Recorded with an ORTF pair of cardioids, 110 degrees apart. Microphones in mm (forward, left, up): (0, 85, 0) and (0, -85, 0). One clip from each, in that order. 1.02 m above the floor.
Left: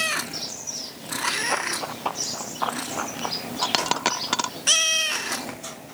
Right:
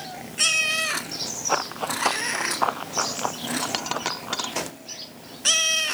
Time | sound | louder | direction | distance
1.5 | running footsteps | right 1 dB | 25° right | ?
3.6 | a dropped coin | left 7 dB | 25° left | ?